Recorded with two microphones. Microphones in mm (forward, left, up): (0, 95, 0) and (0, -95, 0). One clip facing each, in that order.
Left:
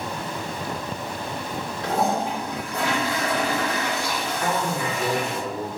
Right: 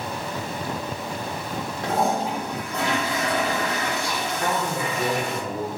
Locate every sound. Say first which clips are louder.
1.8 s a toilet flushing: even; 50° right (ahead or behind), 1.5 m
4.4 s a man speaking: left 1 dB; 30° right (ahead or behind), 0.9 m